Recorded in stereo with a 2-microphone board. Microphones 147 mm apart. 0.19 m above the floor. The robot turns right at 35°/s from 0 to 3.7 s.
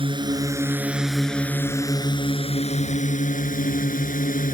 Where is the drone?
40° right; by 4.5 s 90° left.